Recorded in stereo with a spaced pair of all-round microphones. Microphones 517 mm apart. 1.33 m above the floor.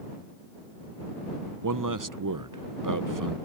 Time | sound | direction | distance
1.6 | a man speaking | 40° right (ahead or behind) | ?